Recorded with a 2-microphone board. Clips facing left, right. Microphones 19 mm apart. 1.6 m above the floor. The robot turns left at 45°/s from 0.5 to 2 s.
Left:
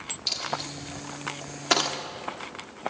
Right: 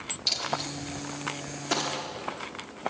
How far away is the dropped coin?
About 1.8 m.